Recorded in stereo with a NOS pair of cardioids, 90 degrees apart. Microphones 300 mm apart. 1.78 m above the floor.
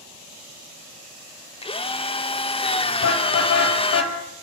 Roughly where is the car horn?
Ahead left.